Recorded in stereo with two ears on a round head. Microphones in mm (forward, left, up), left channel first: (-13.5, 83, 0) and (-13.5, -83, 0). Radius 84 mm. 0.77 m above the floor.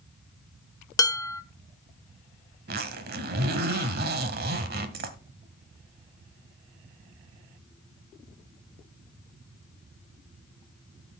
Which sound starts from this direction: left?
Dishes clattering, at 1.0 s.